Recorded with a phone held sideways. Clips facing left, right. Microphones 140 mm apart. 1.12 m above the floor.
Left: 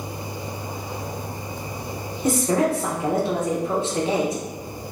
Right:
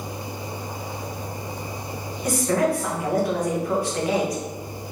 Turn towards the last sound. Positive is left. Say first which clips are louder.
# left 1 dB
turn(degrees=25)  # may be behind; listen again after turning